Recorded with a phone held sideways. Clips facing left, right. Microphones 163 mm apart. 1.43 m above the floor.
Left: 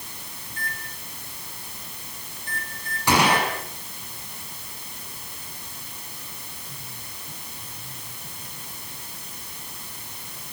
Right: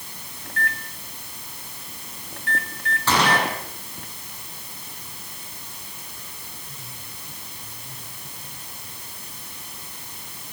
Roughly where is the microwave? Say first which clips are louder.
Right 7 dB; right.